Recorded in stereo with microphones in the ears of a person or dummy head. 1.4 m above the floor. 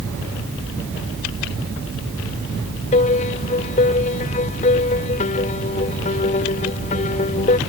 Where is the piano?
35° left (ahead or behind).